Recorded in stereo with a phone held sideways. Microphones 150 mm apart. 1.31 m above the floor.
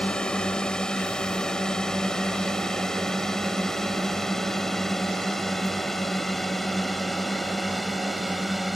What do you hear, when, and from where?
0.0 s a drone: 5° left (ahead or behind); by 8.8 s centre (ahead or behind)